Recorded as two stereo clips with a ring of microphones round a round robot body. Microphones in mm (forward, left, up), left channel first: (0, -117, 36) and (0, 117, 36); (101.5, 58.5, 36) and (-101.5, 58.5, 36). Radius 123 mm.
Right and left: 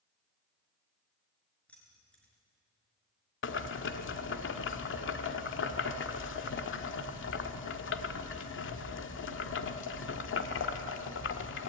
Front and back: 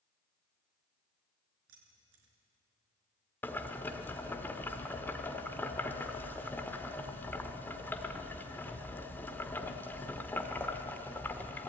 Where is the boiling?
80° right, 1.2 m.